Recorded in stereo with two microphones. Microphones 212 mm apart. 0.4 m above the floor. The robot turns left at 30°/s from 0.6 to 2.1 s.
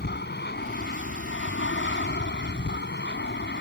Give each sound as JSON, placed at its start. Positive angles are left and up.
{"t": 0.0, "sound": "an aircraft", "side_deg": 60}